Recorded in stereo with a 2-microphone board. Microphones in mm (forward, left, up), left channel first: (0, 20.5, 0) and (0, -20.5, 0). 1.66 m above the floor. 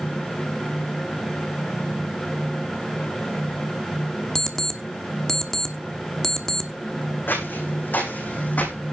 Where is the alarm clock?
15° left (ahead or behind), 1.3 m.